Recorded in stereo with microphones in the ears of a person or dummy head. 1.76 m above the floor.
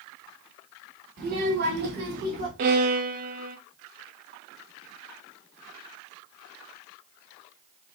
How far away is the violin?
About 0.5 m.